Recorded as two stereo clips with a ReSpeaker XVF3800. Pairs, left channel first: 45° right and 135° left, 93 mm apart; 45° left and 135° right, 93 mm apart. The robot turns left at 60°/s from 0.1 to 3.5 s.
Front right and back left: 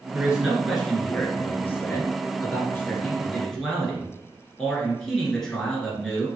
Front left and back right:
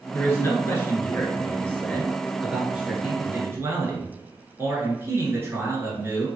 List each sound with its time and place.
0.1 s a man speaking: 80° left, 1.6 m; by 6.3 s 120° right, 1.6 m